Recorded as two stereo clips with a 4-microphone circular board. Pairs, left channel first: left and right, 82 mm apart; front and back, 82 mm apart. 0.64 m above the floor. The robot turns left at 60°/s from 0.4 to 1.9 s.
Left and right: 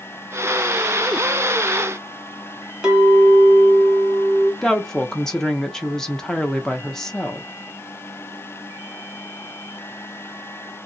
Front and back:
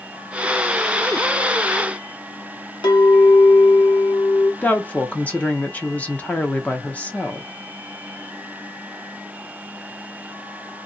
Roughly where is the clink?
Ahead.